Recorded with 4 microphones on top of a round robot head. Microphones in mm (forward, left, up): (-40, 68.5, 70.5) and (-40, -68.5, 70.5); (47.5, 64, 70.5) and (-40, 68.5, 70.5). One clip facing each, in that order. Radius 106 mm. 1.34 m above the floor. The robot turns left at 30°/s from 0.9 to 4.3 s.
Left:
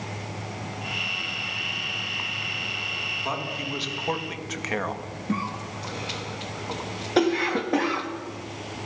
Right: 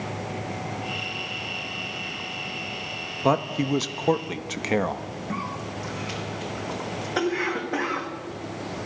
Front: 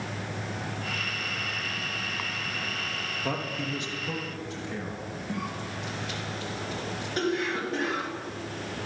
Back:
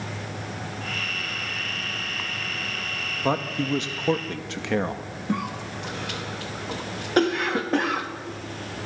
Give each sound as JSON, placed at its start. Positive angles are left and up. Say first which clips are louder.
{"t": 3.2, "sound": "a man speaking", "louder": "right 10 dB, back 8 dB", "azimuth_deg": -115, "distance_m": 1.7}
{"t": 5.3, "sound": "a cough", "louder": "left 4 dB, back 7 dB", "azimuth_deg": 150, "distance_m": 3.0}